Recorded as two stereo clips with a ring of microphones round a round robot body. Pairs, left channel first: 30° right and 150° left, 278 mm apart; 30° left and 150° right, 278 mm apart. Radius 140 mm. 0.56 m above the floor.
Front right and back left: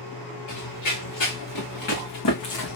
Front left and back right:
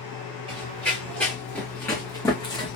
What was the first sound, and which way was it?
Running footsteps, 60° right.